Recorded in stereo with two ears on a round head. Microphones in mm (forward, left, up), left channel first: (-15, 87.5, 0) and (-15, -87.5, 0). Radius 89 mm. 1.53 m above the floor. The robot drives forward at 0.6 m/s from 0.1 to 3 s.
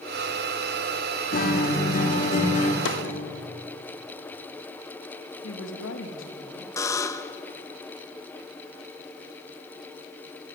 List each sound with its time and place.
1.3 s a guitar: 50° left (ahead or behind), 3 m; by 2.8 s 40° left (ahead or behind), 3.5 m
2.9 s a snare drum: 75° left (ahead or behind), 3 m
5.4 s a woman speaking: 80° left, 3 m
6.8 s a buzzer: 15° left (ahead or behind), 1.0 m